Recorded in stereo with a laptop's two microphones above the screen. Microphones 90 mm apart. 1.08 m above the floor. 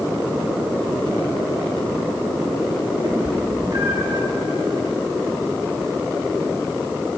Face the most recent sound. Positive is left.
turn(degrees=-55)  # may be behind; listen again after turning